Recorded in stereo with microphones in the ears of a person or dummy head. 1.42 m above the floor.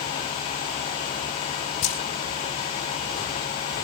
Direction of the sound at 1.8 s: 45° left (ahead or behind).